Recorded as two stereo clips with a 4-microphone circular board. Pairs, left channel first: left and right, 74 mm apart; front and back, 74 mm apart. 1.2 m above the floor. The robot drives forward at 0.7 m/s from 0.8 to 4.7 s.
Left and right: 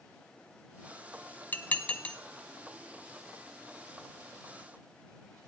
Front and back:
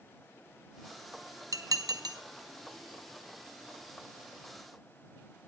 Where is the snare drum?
No snare drum in this recording.